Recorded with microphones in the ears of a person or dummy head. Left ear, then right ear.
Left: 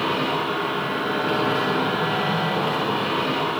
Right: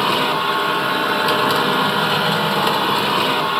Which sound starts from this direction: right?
A machine running, at 0.0 s.